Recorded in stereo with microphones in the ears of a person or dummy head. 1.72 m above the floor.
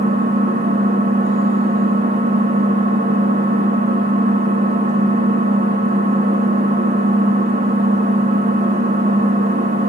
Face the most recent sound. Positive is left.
turn(degrees=-35)  # may be behind; listen again after turning